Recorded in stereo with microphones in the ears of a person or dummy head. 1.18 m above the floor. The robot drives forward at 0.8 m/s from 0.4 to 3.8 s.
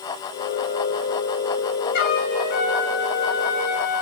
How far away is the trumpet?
About 5 m.